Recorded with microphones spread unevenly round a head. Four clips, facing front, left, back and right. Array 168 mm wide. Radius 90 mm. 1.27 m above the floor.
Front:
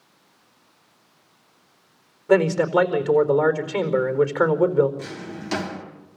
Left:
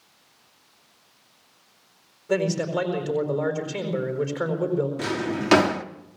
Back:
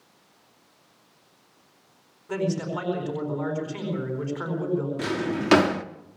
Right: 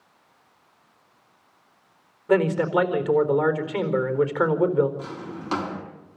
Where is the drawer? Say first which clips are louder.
Left 8 dB, back 7 dB; 140° left, 1.2 m.